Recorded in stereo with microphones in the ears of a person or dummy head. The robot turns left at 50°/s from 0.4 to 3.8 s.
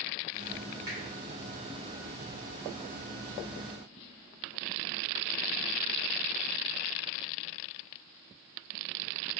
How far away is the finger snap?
About 1.8 m.